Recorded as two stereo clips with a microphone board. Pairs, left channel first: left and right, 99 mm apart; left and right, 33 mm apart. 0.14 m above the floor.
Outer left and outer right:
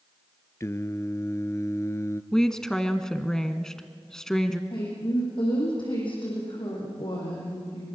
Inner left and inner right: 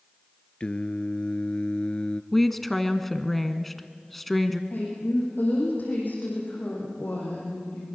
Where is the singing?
30° left (ahead or behind), 0.8 m.